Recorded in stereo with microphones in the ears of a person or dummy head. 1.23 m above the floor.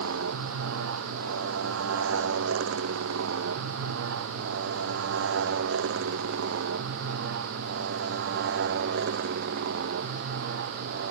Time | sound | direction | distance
0.0 | a motorcycle | 80° right | ?